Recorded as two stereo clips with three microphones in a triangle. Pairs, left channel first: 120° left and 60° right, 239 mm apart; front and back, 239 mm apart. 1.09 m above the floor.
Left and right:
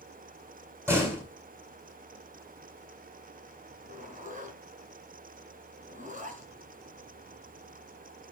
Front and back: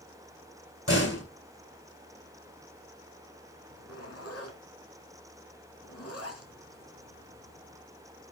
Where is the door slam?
20° left, 8 m.